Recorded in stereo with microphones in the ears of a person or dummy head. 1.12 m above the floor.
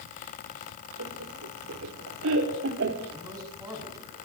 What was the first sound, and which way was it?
Laughter, 75° right (ahead or behind).